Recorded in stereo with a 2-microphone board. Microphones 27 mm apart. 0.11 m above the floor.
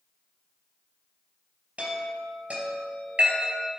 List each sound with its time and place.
1.8 s a chime: 50° right (ahead or behind), 2.5 m